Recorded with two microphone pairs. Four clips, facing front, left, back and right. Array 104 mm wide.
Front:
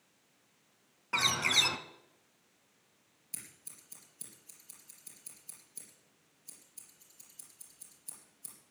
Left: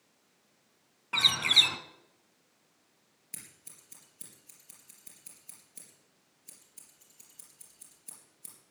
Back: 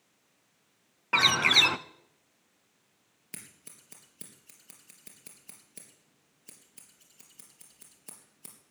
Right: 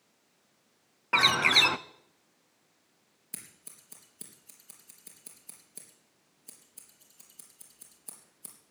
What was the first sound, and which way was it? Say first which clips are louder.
A bird: right 8 dB, back 7 dB; 120° right.